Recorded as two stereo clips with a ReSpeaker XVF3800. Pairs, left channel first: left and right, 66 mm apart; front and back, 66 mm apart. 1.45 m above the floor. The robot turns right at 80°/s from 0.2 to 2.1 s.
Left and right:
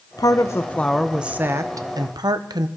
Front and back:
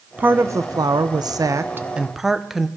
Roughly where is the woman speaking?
Behind left.